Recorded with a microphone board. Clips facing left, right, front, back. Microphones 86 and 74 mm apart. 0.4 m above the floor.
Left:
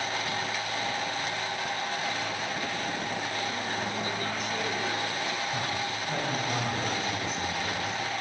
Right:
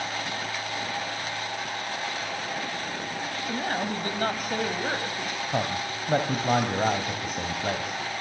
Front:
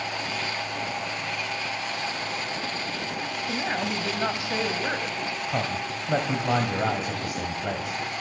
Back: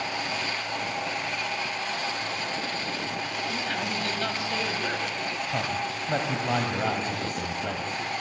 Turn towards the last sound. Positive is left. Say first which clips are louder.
# right 3 dB, front 1 dB
turn(degrees=-75)